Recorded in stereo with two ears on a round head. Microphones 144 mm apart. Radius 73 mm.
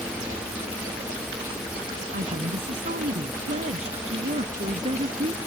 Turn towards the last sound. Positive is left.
turn(degrees=-40)  # may be behind; listen again after turning